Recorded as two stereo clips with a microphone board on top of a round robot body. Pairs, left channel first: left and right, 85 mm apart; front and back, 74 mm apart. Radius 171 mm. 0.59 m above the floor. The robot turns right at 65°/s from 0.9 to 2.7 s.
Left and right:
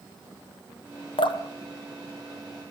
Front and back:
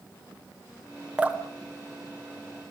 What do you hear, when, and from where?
1.2 s dripping: 105° left, 1.6 m; by 1.4 s 115° left, 1.6 m